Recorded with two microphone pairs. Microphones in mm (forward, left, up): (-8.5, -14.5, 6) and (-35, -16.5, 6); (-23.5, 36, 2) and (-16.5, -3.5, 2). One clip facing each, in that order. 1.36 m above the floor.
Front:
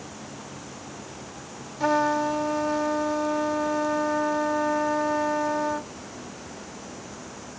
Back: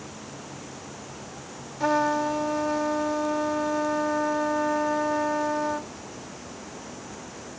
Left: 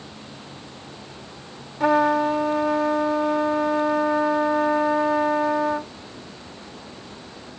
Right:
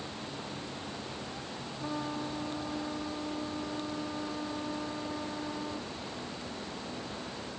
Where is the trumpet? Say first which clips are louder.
Front 1 dB, left 19 dB; 95° left.